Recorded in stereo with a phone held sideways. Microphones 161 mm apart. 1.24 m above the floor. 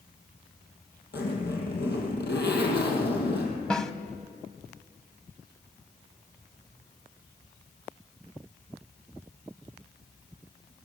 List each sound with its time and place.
1.1 s a zipper: 75° left (ahead or behind), 5.5 m
3.7 s a snare drum: 5° left (ahead or behind), 1.2 m